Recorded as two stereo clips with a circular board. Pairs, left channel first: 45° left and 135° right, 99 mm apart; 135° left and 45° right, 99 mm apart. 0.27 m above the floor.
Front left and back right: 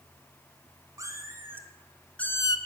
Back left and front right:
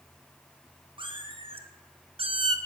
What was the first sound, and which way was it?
A cat meowing, 80° right.